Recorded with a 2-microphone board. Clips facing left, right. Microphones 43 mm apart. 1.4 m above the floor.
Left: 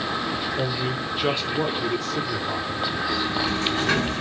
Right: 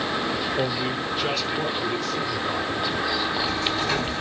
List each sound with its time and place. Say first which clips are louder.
0.6 s a man speaking: right 1 dB; 20° right (ahead or behind), 1.1 m; by 2.8 s 70° left (ahead or behind), 1.7 m
3.1 s a sliding door: left 1 dB; 70° left (ahead or behind), 2.5 m